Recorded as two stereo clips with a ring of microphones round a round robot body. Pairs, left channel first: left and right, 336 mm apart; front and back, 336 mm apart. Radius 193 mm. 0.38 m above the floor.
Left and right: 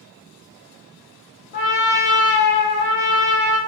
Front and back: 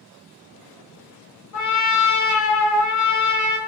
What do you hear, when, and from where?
1.5 s a trumpet: 35° left, 0.8 m